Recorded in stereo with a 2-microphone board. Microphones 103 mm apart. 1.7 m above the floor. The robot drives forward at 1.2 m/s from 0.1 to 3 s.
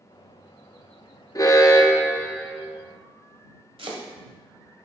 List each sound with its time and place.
1.4 s an alarm: 35° left (ahead or behind), 0.7 m; by 2.6 s 15° left (ahead or behind), 1.7 m
3.8 s chopping: 65° right (ahead or behind), 1.3 m